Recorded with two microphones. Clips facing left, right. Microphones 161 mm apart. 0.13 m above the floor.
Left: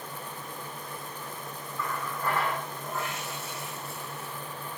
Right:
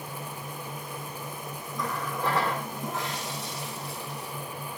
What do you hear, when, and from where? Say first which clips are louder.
1.8 s a running tap: right 3 dB; 75° right (ahead or behind), 3.5 m